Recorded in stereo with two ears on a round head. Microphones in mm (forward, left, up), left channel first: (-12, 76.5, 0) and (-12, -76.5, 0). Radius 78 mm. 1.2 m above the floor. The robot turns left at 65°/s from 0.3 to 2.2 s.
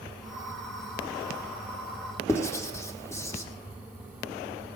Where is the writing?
20° left (ahead or behind), 1.6 m.